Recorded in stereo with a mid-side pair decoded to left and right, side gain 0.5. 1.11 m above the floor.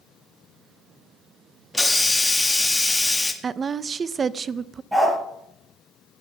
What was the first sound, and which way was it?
A hiss, 10° left.